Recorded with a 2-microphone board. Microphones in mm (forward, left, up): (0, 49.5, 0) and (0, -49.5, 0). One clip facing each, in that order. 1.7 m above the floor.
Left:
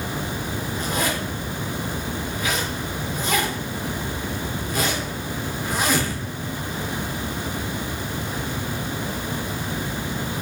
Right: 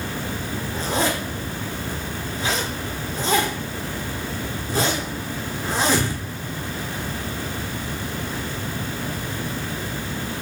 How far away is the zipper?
About 1.4 m.